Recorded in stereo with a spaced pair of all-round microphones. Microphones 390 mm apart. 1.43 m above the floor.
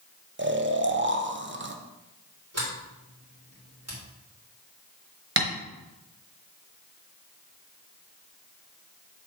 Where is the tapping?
30° right (ahead or behind), 1.1 m.